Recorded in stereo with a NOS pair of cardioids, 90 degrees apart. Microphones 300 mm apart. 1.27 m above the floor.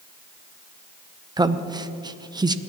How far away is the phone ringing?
No phone ringing in this recording.